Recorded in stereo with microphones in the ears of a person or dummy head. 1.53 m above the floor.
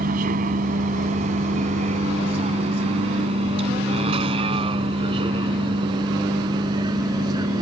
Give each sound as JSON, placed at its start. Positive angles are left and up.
{"t": 0.0, "sound": "a vehicle", "side_deg": -45}